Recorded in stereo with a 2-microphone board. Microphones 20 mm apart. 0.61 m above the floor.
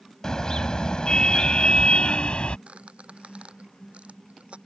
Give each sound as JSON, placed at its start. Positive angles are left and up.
{"t": 0.2, "sound": "a car horn", "side_deg": 30}
{"t": 2.7, "sound": "a squeak", "side_deg": -85}